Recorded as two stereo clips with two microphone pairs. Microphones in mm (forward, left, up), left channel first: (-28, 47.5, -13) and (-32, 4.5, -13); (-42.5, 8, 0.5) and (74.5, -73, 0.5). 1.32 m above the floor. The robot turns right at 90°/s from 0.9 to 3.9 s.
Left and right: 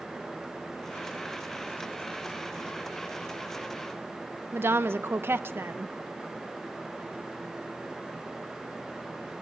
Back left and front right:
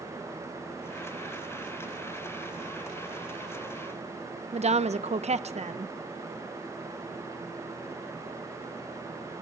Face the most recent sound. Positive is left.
turn(degrees=-70)